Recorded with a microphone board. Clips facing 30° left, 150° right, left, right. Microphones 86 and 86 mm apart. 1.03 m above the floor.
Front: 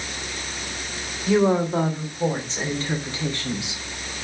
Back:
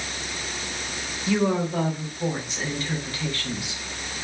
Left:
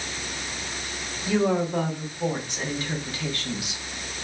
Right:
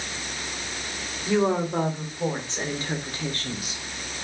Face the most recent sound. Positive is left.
turn(degrees=-40)